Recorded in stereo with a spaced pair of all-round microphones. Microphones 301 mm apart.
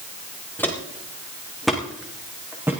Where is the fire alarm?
No fire alarm in this recording.